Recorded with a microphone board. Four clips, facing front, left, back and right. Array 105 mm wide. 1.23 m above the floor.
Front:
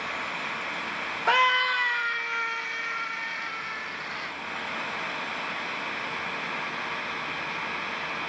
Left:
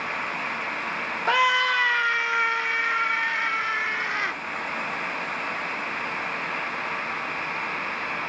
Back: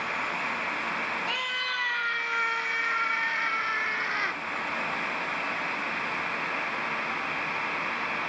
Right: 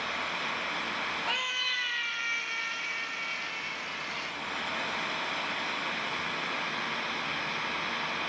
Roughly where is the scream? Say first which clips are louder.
Left 14 dB, front 10 dB; ahead left.